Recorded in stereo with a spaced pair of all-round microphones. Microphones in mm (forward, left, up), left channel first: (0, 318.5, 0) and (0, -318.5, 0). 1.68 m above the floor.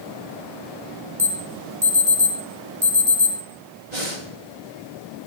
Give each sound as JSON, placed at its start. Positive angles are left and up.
{"t": 1.2, "sound": "an alarm", "side_deg": -30, "distance_m": 3.0}
{"t": 3.9, "sound": "breathing", "side_deg": -80, "distance_m": 3.0}